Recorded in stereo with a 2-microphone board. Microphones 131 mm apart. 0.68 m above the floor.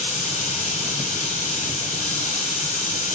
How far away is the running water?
About 8 m.